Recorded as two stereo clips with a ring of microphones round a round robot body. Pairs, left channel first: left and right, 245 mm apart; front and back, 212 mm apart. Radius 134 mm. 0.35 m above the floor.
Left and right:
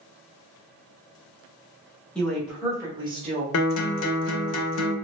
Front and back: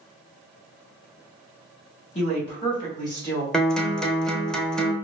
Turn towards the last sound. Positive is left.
turn(degrees=85)